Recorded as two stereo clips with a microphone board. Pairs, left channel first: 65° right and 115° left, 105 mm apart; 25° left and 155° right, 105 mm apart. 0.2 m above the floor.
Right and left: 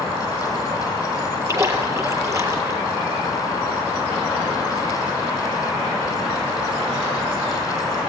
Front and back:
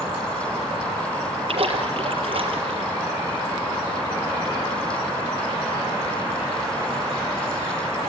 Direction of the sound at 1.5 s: 175° left.